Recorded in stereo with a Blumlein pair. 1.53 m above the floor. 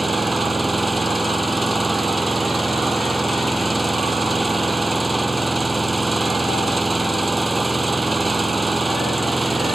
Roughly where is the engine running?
Ahead.